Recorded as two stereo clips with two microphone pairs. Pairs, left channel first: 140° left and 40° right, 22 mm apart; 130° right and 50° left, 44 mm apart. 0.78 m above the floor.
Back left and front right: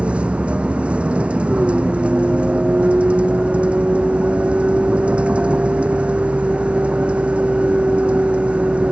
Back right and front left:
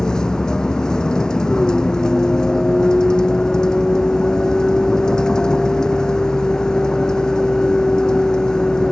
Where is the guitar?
No guitar in this recording.